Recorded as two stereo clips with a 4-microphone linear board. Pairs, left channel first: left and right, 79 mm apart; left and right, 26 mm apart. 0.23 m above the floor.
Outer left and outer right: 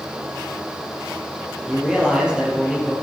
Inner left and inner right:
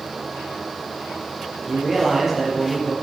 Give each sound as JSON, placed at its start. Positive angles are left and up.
{"t": 1.7, "sound": "a man speaking", "side_deg": -10, "distance_m": 6.0}